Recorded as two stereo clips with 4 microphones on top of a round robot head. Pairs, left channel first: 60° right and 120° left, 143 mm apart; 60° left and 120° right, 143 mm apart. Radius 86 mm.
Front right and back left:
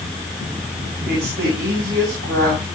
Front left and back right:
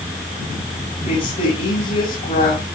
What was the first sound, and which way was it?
A woman speaking, 110° left.